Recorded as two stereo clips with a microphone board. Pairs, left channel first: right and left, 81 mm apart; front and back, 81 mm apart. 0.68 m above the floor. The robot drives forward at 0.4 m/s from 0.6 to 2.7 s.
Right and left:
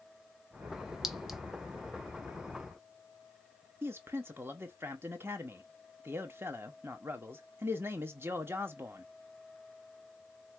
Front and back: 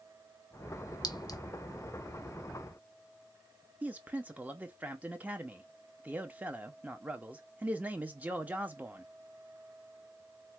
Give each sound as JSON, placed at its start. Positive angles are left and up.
{"t": 1.0, "sound": "a clink", "azimuth_deg": 5, "distance_m": 0.7}
{"t": 3.8, "sound": "a man speaking", "azimuth_deg": 125, "distance_m": 0.7}